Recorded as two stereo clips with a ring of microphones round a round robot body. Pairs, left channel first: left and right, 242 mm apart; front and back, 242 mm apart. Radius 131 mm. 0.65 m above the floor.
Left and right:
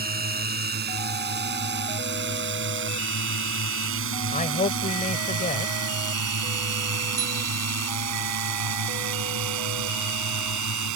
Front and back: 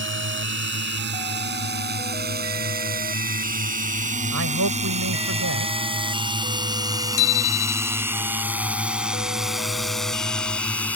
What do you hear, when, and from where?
0.0 s a drone: 140° right; by 11.0 s 85° right
4.3 s a man speaking: 145° left
7.2 s a bicycle bell: 15° right